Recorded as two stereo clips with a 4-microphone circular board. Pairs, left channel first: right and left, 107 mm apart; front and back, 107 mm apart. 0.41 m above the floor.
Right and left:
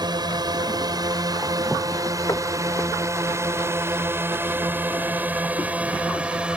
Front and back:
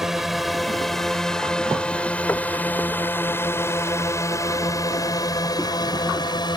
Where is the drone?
95° left; by 6.6 s 15° left.